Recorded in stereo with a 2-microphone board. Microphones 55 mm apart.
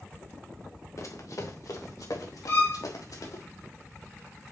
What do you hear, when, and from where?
1.0 s running footsteps: 60° left (ahead or behind), 2 m; by 3.4 s 90° left, 3.5 m
2.5 s a violin: 65° left (ahead or behind), 5 m